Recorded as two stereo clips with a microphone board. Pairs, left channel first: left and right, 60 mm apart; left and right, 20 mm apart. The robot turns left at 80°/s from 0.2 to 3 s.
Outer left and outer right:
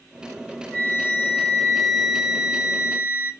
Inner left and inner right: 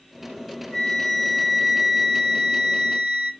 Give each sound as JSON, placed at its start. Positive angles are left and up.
{"t": 0.7, "sound": "a flute", "side_deg": 30, "distance_m": 1.8}